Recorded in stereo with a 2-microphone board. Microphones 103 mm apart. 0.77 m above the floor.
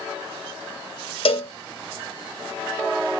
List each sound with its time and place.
1.2 s a cowbell: 65° left (ahead or behind), 1.6 m